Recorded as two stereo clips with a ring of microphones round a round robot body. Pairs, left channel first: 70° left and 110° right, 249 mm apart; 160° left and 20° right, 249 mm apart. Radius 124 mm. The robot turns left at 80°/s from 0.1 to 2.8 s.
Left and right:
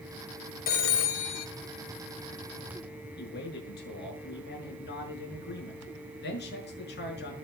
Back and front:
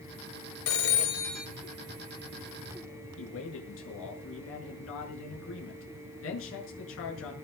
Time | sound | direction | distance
0.7 | a phone ringing | 125° left | 1.7 m
3.2 | a man speaking | 120° left | 6.5 m